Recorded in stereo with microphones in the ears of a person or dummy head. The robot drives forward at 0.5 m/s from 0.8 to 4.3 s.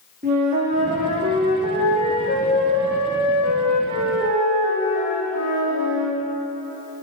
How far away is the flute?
About 1.1 m.